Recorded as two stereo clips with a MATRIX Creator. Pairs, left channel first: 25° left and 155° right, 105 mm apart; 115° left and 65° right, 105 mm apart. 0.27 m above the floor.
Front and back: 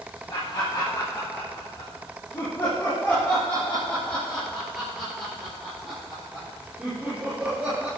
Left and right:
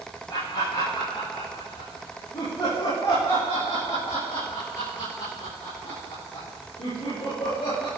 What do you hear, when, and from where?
0.3 s laughter: 75° left, 7 m; by 7.9 s 130° left, 6 m